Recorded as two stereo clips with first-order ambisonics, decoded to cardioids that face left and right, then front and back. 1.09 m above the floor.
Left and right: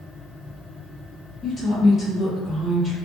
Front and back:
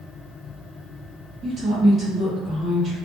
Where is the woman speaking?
135° left, 0.7 m.